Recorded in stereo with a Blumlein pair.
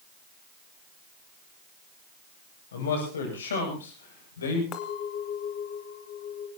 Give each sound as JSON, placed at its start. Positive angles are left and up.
{"t": 2.7, "sound": "a man speaking", "azimuth_deg": 65, "distance_m": 8.5}
{"t": 4.7, "sound": "a clink", "azimuth_deg": 35, "distance_m": 2.5}